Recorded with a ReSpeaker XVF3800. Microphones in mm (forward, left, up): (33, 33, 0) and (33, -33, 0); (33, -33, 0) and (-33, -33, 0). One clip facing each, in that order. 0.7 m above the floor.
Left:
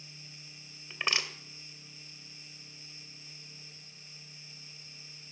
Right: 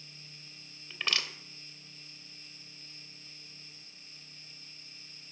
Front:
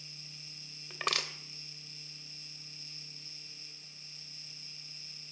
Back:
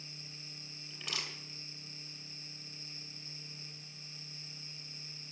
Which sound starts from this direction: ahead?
Crushing, at 0.9 s.